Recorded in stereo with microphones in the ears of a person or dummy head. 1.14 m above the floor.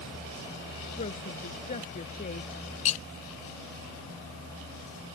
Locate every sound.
1.0 s a woman speaking: 35° left (ahead or behind)
2.9 s cutlery clinking: 35° left (ahead or behind)